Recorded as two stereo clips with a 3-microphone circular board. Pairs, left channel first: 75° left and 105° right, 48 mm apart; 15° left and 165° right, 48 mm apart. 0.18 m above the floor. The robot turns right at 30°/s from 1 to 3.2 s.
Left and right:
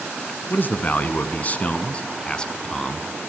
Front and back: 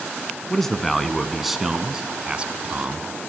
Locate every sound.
0.5 s a man speaking: 95° left, 1.3 m; by 3.1 s 155° left, 1.3 m